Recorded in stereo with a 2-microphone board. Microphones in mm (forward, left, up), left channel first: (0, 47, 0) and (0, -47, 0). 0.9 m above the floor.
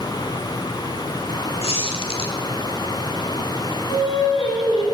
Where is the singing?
80° left, 3.5 m.